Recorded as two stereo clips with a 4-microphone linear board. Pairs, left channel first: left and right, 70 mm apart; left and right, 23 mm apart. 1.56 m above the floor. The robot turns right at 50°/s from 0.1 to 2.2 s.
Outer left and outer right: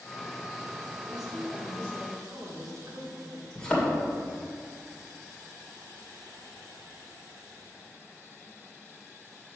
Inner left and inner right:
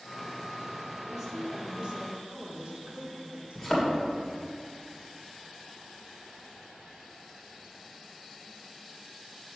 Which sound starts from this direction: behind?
A woman speaking, at 1.1 s.